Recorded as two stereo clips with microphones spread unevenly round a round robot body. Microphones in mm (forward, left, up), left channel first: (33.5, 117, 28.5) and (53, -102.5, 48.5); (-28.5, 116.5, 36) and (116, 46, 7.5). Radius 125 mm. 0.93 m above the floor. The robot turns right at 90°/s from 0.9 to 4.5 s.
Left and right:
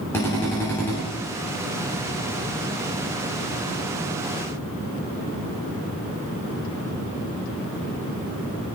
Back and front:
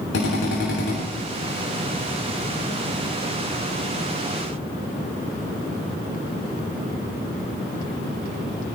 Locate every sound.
0.1 s a drill: 175° left, 8.5 m; by 1.0 s straight behind, 8.5 m